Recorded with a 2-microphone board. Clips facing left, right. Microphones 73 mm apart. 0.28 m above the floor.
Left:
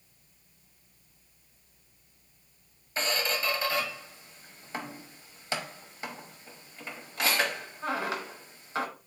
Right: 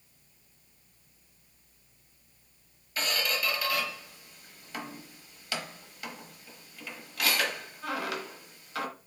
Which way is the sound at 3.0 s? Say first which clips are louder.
Left 1 dB; 30° left (ahead or behind).